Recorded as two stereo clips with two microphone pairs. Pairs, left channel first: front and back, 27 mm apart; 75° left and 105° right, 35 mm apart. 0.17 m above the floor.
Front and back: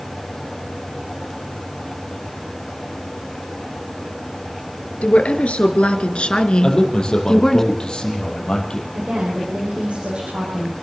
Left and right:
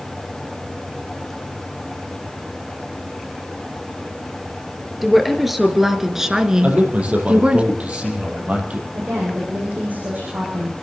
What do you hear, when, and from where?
5.0 s a woman speaking: 15° right, 2.5 m; by 7.6 s 70° right, 1.6 m
6.6 s a man speaking: 60° right, 5 m
8.9 s a woman speaking: 140° right, 6.5 m